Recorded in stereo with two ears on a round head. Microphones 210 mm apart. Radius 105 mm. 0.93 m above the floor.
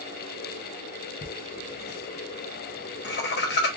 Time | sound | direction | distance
1.2 | laughter | 45° left (ahead or behind) | 0.7 m